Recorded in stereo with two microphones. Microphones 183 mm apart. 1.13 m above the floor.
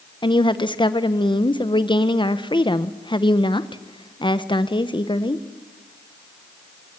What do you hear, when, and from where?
0.2 s a woman speaking: 25° left (ahead or behind), 1.0 m